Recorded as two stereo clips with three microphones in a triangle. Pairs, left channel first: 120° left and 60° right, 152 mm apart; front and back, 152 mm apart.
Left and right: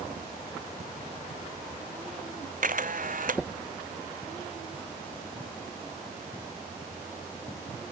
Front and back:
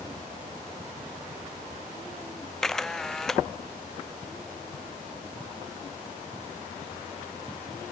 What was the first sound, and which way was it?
A camera shutter, 90° right.